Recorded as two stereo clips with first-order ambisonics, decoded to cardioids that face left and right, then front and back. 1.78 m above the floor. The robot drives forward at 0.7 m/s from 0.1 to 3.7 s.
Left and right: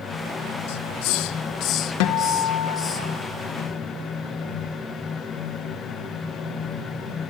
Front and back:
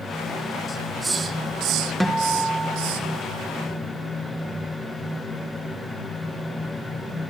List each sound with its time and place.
0.7 s a hiss: 70° left, 0.6 m; by 3.0 s 160° left, 1.6 m
2.0 s a guitar: 90° left, 1.7 m; by 3.1 s 115° left, 1.8 m